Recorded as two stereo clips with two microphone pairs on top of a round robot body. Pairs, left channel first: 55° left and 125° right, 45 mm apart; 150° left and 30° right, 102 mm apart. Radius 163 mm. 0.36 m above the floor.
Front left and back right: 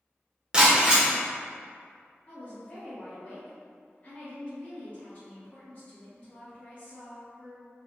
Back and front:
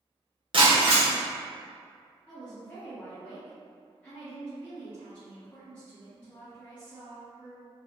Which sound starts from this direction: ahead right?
Breaking glass, at 0.5 s.